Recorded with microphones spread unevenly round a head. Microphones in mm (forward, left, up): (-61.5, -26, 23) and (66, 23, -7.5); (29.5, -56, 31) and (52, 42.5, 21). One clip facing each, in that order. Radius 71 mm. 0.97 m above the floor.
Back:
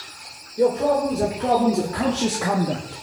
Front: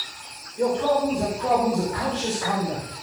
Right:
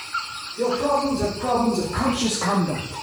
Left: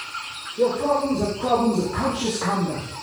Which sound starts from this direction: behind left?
A man speaking, at 0.6 s.